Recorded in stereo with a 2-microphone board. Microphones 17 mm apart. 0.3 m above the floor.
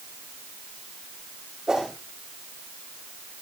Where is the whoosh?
45° right (ahead or behind), 7 m.